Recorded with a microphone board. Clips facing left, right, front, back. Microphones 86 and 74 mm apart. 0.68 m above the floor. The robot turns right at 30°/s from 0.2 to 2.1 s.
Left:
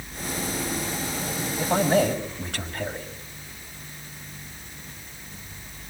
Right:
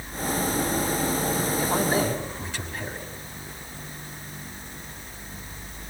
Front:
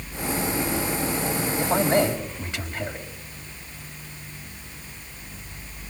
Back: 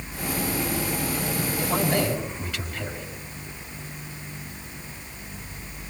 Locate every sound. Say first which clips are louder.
1.6 s a man speaking: left 5 dB, front 4 dB; 50° left, 4 m; by 3.1 s 65° left, 4 m